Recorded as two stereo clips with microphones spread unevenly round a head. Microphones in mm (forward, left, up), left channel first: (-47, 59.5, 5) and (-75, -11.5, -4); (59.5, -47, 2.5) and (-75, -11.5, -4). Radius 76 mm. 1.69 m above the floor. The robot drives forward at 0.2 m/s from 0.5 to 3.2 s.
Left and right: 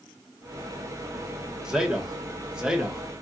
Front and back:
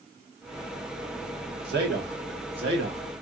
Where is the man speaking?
165° left, 1.7 m; by 3.0 s 170° left, 1.9 m.